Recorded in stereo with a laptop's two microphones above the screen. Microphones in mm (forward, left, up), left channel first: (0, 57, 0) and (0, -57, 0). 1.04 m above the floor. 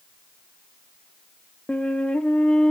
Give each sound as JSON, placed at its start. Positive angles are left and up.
{"t": 1.7, "sound": "a flute", "side_deg": 10, "distance_m": 0.6}